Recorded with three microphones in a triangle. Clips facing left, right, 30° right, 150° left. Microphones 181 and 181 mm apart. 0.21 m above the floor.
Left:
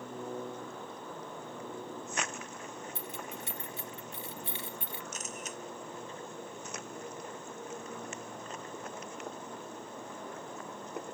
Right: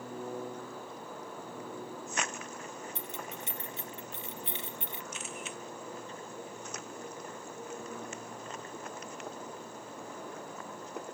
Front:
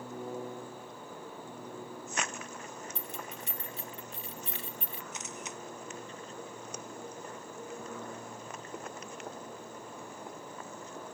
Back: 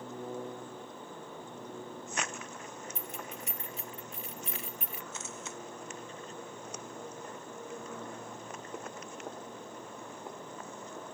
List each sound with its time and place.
3.0 s keys jangling: 40° right
5.1 s a camera shutter: 40° left